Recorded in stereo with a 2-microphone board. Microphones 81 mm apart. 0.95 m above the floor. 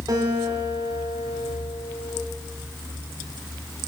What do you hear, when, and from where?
0.1 s a guitar: 55° right (ahead or behind), 3.5 m